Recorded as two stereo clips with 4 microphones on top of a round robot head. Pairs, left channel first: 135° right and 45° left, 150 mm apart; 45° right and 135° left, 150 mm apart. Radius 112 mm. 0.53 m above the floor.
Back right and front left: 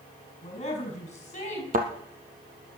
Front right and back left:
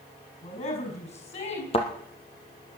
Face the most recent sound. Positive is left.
turn(degrees=10)